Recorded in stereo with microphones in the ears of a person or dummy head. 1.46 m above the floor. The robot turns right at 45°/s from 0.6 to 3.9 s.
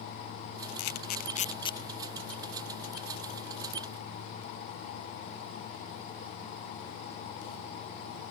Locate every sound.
0.8 s a camera shutter: 60° left (ahead or behind); by 1.8 s 20° left (ahead or behind)